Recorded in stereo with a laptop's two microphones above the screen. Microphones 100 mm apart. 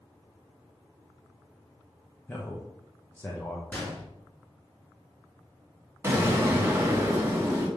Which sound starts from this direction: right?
An explosion, at 6.0 s.